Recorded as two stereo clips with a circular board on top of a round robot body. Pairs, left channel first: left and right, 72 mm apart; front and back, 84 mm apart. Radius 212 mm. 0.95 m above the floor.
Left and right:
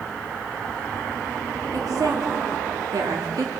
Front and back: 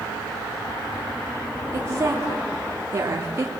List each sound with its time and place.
1.7 s a woman speaking: 125° right, 3 m